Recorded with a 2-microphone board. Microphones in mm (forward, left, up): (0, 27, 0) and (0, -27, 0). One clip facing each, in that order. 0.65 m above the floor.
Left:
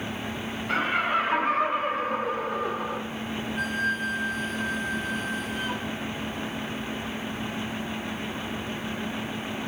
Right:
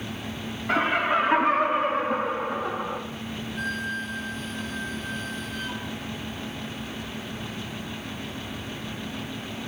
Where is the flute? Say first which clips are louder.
Left 3 dB; 10° left (ahead or behind), 1.6 m.